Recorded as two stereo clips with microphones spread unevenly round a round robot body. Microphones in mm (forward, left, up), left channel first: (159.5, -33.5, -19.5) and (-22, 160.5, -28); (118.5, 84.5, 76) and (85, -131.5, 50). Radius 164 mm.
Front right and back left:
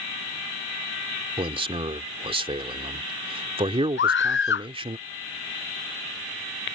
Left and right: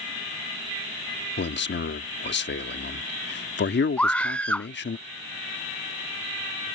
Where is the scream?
5° right.